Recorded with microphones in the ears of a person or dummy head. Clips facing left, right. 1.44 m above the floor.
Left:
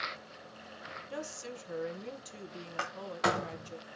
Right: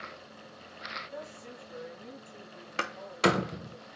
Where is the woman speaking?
80° left, 1.6 m.